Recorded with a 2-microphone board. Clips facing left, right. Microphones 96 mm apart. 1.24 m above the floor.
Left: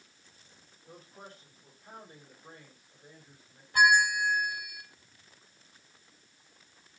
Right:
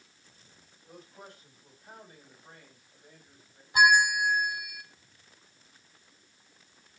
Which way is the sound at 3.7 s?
20° right (ahead or behind).